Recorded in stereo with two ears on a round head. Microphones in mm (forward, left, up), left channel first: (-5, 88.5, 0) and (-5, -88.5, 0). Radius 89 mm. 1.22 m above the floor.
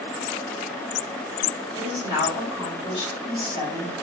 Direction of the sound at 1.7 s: 25° left (ahead or behind).